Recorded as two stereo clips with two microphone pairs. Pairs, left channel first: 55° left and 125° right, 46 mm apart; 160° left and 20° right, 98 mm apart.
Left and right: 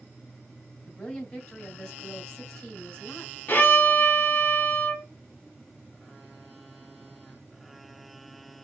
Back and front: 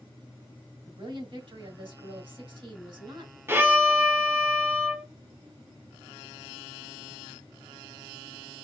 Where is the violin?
30° left, 1.1 m.